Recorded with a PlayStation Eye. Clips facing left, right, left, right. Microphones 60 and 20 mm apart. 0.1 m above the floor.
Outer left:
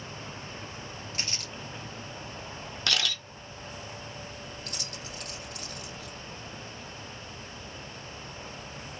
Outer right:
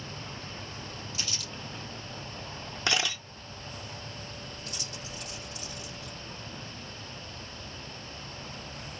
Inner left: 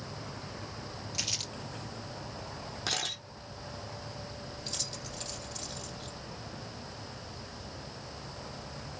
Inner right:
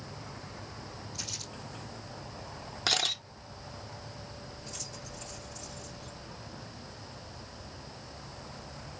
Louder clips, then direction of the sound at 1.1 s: Outer left 2 dB, inner left 6 dB; 55° left (ahead or behind).